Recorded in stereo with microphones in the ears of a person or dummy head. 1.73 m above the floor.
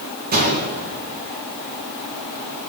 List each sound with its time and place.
0.3 s a gunshot: 40° right (ahead or behind), 2.5 m